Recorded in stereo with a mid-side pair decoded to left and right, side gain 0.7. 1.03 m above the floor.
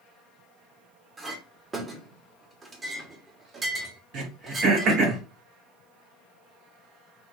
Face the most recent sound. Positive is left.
turn(degrees=-55)